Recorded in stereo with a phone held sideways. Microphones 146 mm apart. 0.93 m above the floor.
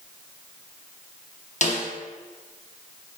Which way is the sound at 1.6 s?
50° left (ahead or behind).